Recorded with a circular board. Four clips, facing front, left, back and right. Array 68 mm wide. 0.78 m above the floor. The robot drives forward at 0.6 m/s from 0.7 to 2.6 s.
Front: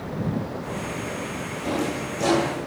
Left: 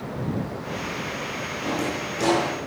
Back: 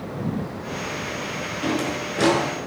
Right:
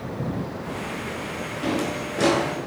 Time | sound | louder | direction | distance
1.6 | a drawer | right 2 dB, back 1 dB | 155° right | 6.5 m